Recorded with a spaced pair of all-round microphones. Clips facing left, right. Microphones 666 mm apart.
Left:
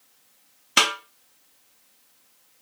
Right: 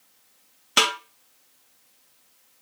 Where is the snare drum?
5° left (ahead or behind), 1.3 m.